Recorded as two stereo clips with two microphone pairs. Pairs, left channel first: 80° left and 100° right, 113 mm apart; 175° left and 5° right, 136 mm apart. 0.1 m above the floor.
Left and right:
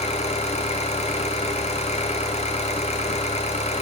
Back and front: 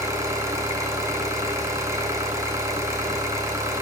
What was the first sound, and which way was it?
An engine running, 65° left.